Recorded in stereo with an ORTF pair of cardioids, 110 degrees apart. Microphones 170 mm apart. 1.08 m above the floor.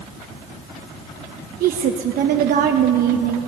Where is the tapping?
I don't hear tapping.